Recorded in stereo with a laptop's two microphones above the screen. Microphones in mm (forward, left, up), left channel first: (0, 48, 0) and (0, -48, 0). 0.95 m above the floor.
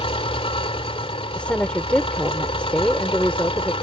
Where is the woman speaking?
15° left (ahead or behind).